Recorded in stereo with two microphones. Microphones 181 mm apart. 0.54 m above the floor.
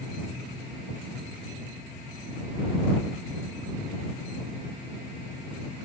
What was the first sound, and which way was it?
Only background noise.